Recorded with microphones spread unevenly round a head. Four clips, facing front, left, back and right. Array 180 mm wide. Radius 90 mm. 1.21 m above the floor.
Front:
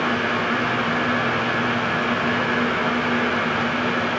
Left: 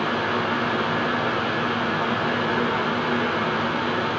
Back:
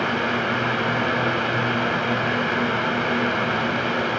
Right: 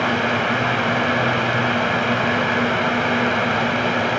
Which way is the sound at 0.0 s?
100° right.